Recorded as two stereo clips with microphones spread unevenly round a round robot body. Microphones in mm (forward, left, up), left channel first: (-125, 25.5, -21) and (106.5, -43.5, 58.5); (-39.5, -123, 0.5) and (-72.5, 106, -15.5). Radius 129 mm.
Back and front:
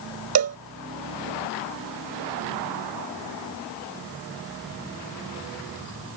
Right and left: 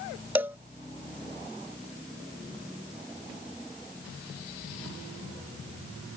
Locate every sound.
0.3 s a cowbell: 15° left